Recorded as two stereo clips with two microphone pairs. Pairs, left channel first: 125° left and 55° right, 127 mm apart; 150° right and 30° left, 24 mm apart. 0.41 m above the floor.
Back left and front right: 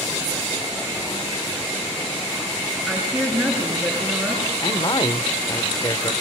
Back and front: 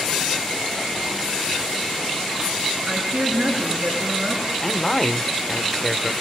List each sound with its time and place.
2.9 s a woman speaking: 30° left, 7.5 m
4.6 s a man speaking: 145° left, 1.1 m